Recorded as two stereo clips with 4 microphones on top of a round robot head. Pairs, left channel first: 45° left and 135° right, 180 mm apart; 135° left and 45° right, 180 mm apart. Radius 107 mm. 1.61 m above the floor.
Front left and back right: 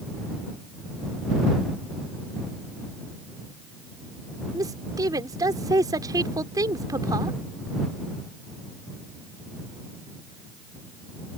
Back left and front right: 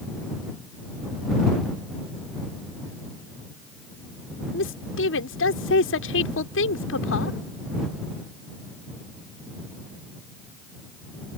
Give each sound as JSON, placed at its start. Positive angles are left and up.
{"t": 4.5, "sound": "a woman speaking", "azimuth_deg": 155}